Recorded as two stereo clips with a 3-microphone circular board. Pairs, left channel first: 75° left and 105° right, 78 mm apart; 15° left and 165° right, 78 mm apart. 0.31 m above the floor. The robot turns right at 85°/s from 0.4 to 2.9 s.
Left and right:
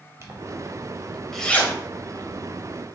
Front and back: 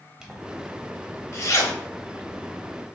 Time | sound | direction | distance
0.2 | a zipper | 90° right | 0.7 m